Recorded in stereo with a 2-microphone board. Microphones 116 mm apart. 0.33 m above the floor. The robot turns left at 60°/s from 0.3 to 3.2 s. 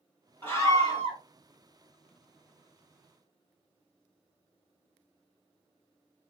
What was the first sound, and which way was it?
A scream, 155° left.